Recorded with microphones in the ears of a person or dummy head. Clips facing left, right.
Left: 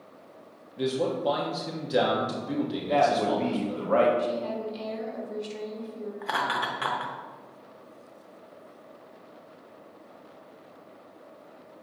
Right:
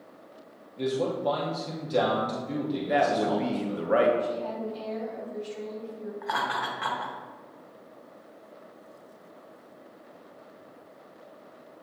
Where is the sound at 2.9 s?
Centre (ahead or behind), 0.8 m.